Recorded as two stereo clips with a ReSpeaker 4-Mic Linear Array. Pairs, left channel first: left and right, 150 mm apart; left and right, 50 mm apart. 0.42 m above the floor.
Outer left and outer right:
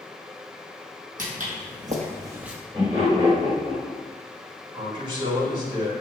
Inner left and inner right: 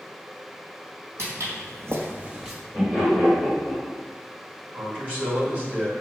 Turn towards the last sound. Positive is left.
turn(degrees=-35)  # may be behind; listen again after turning